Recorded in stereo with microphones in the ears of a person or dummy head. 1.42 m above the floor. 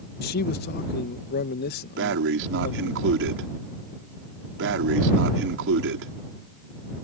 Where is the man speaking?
50° left (ahead or behind).